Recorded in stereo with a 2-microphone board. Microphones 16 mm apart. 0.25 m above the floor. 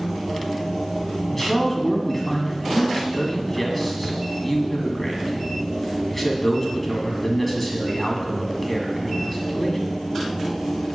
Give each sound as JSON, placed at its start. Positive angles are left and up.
{"t": 1.3, "sound": "a man speaking", "side_deg": 10, "distance_m": 2.0}